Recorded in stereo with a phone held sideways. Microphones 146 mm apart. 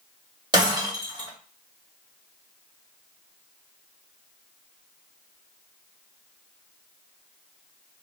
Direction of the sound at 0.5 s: 30° right (ahead or behind).